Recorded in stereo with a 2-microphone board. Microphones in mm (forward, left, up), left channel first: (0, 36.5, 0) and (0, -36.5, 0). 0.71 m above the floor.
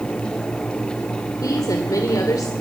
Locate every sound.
1.4 s a woman speaking: 55° left (ahead or behind), 2.5 m